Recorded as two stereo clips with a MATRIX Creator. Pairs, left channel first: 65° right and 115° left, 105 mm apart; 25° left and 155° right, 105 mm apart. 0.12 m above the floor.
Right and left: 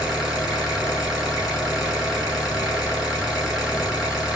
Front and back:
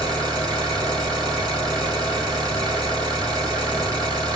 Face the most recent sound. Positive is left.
turn(degrees=-165)